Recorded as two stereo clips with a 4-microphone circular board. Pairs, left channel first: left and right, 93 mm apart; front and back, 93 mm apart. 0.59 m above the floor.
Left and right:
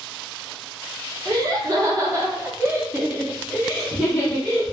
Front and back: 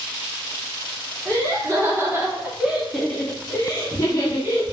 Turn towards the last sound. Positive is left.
turn(degrees=20)